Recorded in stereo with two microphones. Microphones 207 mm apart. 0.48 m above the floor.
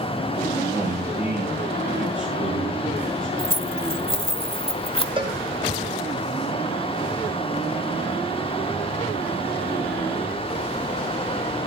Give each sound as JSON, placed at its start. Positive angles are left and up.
{"t": 0.7, "sound": "a man speaking", "side_deg": -15, "distance_m": 8.0}
{"t": 3.4, "sound": "keys jangling", "side_deg": 25, "distance_m": 1.2}
{"t": 5.2, "sound": "a cowbell", "side_deg": -25, "distance_m": 2.5}